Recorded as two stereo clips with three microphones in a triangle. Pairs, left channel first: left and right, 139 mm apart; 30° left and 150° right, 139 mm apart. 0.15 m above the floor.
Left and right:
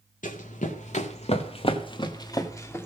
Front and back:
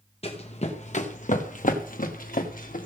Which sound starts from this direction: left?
Running footsteps, at 0.2 s.